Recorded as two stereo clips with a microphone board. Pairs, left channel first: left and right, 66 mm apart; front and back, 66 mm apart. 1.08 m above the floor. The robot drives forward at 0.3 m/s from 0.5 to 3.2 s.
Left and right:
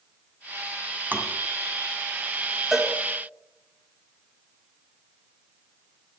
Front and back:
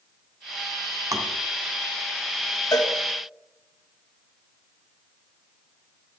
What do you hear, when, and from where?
1.1 s tapping: 150° right, 2 m
2.7 s a cowbell: 5° right, 1.8 m